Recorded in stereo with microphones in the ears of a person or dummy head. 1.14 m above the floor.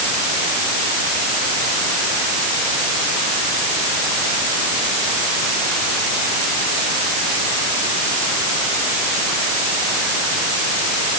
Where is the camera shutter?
I don't hear a camera shutter.